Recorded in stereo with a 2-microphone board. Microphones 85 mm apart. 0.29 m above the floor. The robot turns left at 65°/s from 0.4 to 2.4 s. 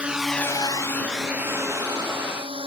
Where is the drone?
15° right (ahead or behind); by 2.7 s 85° right.